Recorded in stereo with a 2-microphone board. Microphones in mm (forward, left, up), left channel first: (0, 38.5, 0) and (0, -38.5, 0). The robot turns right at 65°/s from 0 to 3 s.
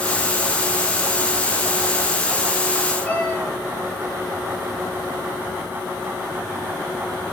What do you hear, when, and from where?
3.0 s a cat meowing: 25° left (ahead or behind), 4.5 m